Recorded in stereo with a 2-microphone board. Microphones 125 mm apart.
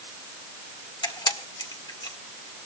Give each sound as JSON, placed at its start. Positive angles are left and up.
{"t": 1.0, "sound": "a camera shutter", "side_deg": 35, "distance_m": 1.5}